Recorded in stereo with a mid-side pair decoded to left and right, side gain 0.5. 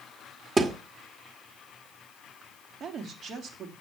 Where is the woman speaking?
55° right, 2.5 m.